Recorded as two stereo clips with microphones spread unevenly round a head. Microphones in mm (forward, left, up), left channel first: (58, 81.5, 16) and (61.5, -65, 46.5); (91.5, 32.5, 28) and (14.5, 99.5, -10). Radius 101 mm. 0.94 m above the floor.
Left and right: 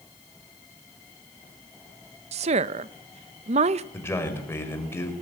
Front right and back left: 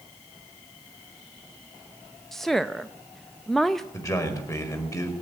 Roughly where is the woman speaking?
Behind right.